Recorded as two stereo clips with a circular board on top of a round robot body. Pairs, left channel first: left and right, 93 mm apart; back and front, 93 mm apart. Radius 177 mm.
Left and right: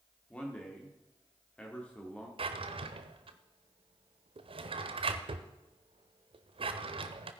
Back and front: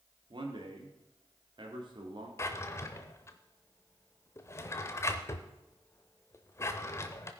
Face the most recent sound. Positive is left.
turn(degrees=-120)